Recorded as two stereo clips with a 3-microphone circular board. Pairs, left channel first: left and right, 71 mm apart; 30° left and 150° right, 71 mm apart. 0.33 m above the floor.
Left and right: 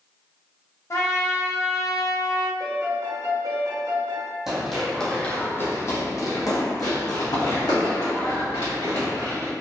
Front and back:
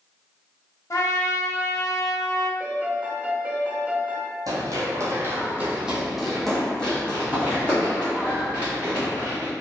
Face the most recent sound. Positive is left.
turn(degrees=80)